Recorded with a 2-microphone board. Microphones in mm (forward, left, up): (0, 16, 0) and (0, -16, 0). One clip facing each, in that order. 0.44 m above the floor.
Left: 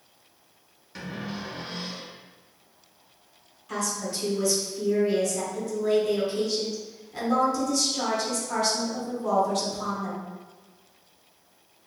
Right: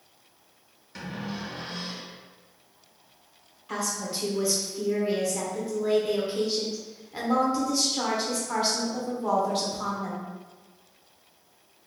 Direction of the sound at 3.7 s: 20° right (ahead or behind).